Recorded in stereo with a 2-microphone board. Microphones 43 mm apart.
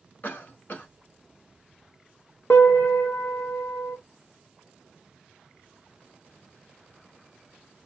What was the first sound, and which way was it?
A cough, 45° left (ahead or behind).